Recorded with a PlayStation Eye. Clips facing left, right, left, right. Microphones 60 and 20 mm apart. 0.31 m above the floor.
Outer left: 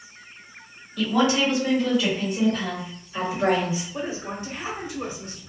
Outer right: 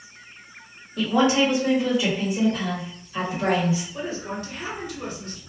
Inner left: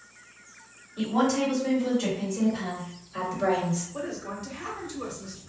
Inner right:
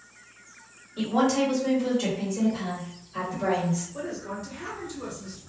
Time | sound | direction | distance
1.0 | a woman speaking | 40° right (ahead or behind) | 1.8 m
3.9 | a woman speaking | 25° left (ahead or behind) | 0.9 m